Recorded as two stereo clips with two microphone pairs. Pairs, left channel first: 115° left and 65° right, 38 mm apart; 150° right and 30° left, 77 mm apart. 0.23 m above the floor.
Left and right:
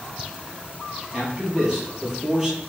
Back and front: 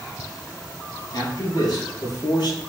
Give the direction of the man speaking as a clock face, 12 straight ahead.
4 o'clock.